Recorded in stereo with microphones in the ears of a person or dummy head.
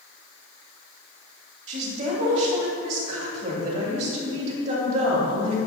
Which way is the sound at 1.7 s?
45° right (ahead or behind).